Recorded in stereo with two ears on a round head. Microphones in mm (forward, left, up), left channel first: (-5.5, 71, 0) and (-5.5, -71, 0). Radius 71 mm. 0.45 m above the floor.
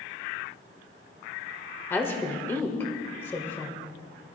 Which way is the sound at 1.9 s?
15° left (ahead or behind).